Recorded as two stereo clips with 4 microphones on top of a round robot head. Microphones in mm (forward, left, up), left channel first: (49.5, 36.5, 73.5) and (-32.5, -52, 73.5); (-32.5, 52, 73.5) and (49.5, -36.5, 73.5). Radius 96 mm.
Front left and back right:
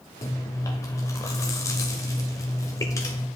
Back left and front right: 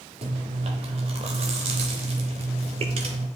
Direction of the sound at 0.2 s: 15° right.